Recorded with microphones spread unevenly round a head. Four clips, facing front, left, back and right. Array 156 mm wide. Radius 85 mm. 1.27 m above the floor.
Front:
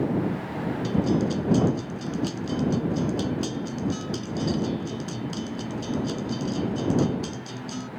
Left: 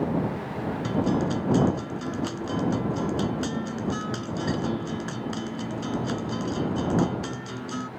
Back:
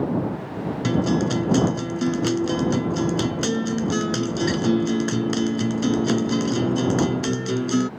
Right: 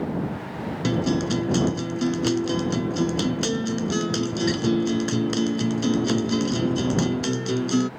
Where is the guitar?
140° right.